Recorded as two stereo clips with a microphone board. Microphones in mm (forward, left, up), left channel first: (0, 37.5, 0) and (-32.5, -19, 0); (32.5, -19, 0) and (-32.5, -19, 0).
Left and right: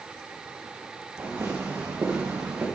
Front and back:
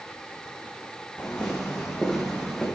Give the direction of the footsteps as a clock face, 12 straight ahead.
2 o'clock.